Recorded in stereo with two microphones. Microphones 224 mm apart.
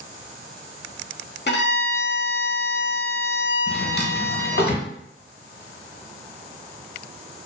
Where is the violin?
55° left (ahead or behind), 0.5 m.